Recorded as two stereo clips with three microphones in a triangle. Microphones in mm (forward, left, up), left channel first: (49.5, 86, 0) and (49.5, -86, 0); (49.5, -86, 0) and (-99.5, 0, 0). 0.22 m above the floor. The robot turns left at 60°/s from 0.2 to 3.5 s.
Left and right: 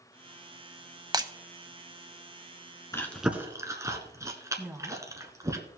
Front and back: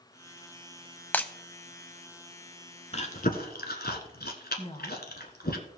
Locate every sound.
1.1 s breaking glass: 95° right, 0.6 m; by 1.3 s 105° right, 0.6 m
2.9 s chewing: 15° left, 1.2 m; by 5.6 s 20° right, 1.2 m
4.6 s a woman speaking: 20° right, 1.3 m